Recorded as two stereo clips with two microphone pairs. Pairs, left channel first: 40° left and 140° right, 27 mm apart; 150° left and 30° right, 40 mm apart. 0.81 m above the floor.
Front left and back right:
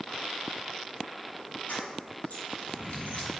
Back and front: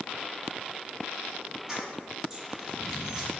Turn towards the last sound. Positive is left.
turn(degrees=45)